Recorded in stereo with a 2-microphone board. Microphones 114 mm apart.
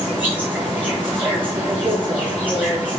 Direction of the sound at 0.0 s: 15° right (ahead or behind).